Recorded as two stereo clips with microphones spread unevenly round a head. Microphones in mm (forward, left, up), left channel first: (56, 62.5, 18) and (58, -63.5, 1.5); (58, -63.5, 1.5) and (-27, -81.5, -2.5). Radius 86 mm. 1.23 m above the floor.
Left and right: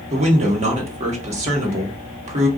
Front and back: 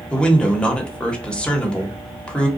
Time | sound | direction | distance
0.1 | a man speaking | 70° right | 1.0 m